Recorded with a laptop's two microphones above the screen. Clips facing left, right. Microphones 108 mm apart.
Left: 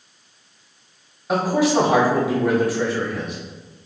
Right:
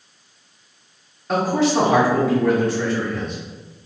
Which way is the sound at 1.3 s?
10° left (ahead or behind).